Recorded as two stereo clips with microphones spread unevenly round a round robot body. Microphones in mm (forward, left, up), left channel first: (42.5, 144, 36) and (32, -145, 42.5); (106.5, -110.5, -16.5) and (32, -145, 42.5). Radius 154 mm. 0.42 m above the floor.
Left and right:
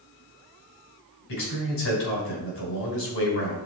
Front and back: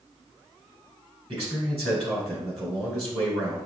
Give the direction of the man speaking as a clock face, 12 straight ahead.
8 o'clock.